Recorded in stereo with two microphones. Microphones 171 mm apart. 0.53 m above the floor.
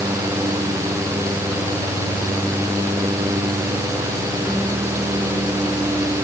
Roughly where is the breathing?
No breathing in this recording.